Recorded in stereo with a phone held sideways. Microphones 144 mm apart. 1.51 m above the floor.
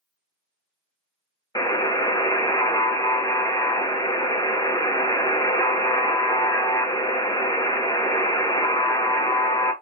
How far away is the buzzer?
About 0.7 m.